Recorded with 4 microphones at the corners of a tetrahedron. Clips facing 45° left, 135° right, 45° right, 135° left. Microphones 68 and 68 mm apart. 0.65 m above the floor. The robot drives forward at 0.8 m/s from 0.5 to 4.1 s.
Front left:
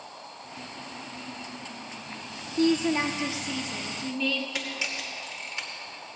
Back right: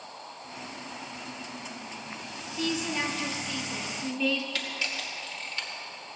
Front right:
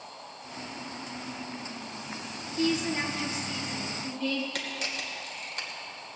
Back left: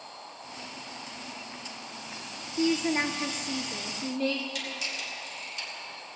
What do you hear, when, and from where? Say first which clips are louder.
2.6 s a woman speaking: front left 7 dB, back left 2 dB; 75° left, 1.0 m; by 4.5 s 140° left, 1.4 m
4.5 s a camera shutter: front left 1 dB, front right 1 dB; 25° right, 2.5 m